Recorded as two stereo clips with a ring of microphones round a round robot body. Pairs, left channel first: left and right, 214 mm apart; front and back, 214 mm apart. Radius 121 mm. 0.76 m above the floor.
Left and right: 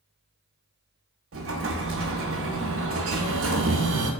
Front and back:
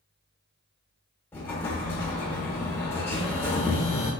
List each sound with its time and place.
1.3 s an explosion: 80° right, 0.5 m